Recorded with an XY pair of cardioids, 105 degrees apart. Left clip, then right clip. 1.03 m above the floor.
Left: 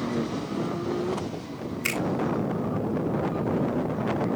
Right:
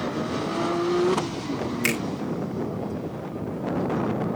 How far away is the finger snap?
About 5.5 m.